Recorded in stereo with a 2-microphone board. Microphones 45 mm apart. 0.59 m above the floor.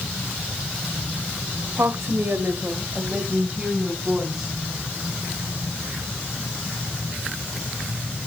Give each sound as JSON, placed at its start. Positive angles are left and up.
{"t": 1.8, "sound": "a woman speaking", "side_deg": -75, "distance_m": 2.0}